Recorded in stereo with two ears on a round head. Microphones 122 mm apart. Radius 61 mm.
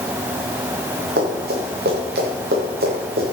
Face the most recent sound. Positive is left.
turn(degrees=-75)  # may be behind; listen again after turning